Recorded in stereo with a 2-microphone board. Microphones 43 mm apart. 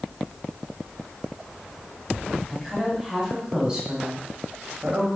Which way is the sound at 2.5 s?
Centre (ahead or behind).